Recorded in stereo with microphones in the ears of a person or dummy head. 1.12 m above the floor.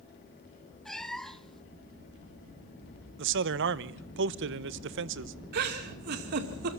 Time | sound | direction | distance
0.8 | a cat meowing | 5° left (ahead or behind) | 0.9 m
3.2 | a man speaking | 65° right (ahead or behind) | 0.9 m
5.5 | a giggle | 55° right (ahead or behind) | 2 m